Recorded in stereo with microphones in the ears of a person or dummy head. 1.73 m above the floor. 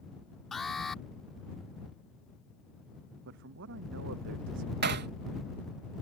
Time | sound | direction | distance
0.5 | an alarm | 5° left (ahead or behind) | ?
3.2 | a man speaking | 65° right (ahead or behind) | ?
4.8 | hammering | 60° right (ahead or behind) | ?